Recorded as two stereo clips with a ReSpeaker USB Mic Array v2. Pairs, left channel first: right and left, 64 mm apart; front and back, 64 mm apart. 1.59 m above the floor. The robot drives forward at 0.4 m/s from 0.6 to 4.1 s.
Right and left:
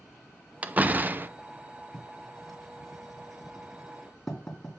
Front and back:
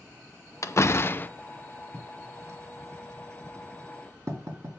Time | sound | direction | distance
0.6 | a door slam | 30° left | 0.7 m
1.9 | writing | 175° right | 2 m